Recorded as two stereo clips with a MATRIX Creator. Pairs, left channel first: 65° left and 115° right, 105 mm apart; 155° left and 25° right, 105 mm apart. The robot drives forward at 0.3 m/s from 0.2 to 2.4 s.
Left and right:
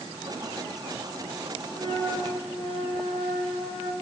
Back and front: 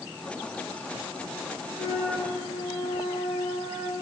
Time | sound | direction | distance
1.8 | a flute | 145° right | 3 m